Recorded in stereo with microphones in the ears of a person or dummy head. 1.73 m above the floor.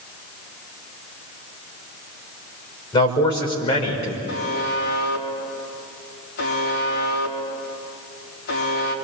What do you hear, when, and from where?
2.9 s a man speaking: 20° left (ahead or behind), 5.5 m; by 4.2 s 30° left (ahead or behind), 5 m
4.3 s a buzzer: 50° left (ahead or behind), 4 m